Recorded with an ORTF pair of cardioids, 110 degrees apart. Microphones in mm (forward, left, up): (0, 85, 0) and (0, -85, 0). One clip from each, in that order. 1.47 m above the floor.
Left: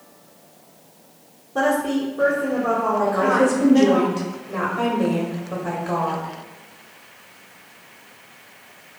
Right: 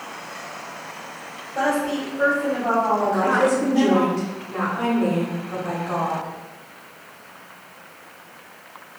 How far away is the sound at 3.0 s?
About 1.3 m.